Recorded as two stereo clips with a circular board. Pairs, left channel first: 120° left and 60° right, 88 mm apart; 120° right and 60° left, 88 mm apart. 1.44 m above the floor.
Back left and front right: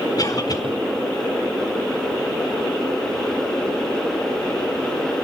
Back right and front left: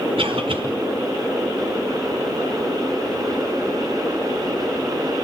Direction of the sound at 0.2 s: 75° left.